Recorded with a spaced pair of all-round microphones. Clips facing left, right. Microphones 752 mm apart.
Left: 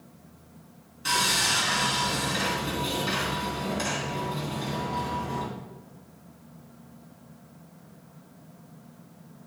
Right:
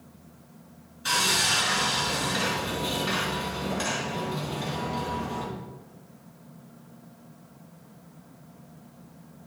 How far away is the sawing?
About 3 m.